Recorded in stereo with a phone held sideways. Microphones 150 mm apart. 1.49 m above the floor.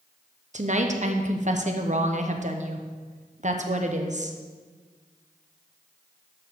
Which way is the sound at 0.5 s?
55° right (ahead or behind).